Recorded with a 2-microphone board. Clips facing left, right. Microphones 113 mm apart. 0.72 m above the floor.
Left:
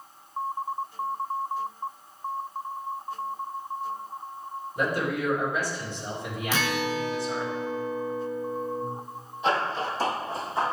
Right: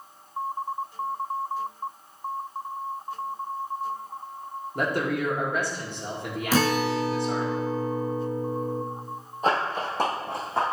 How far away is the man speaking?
About 2.0 m.